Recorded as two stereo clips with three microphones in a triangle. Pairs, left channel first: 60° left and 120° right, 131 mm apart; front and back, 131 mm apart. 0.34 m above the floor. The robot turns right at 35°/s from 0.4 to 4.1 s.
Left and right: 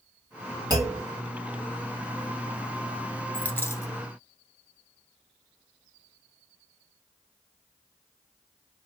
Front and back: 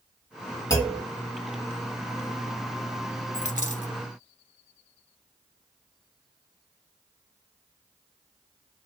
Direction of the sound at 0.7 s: 60° right.